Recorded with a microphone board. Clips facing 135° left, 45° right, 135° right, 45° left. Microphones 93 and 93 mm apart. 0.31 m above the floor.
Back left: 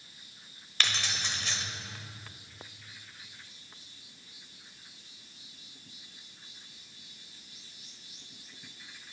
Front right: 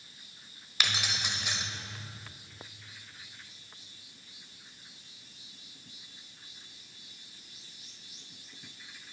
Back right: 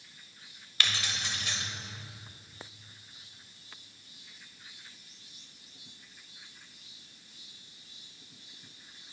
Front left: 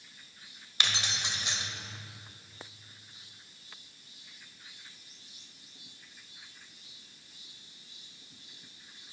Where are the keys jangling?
15° left, 0.9 m.